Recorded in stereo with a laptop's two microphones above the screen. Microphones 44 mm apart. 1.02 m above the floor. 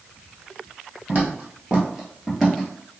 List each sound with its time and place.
1.1 s footsteps: 40° right (ahead or behind), 1.2 m; by 2.7 s 5° left (ahead or behind), 1.2 m